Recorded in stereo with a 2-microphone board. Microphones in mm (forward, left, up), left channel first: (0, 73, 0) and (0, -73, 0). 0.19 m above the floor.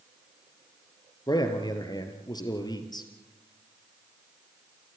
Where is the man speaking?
30° left (ahead or behind), 3 m.